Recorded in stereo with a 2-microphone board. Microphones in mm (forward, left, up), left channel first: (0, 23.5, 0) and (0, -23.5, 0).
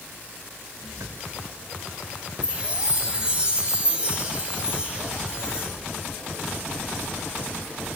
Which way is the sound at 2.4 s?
20° right (ahead or behind).